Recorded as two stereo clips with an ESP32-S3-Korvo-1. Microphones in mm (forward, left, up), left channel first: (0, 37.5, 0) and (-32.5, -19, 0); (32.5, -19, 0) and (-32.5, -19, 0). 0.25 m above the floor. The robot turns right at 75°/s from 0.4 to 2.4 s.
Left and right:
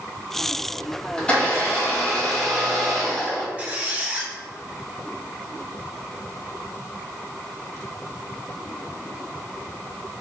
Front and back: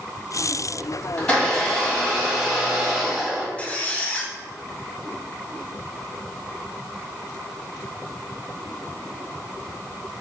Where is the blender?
30° left, 1.6 m; by 3.5 s 125° left, 1.6 m.